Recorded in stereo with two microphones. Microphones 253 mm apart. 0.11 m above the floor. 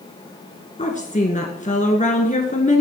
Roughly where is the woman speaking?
Left.